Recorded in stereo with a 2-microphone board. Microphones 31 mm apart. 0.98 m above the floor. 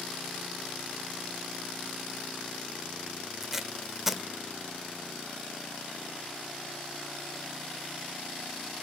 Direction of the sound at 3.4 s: 10° right (ahead or behind).